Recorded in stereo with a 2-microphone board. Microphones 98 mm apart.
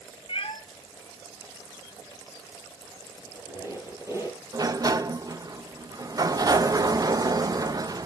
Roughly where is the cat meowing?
Left.